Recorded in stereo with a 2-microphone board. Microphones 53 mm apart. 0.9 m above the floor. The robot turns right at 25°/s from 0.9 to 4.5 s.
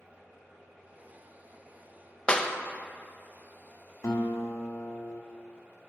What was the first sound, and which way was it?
A clap, 20° left (ahead or behind).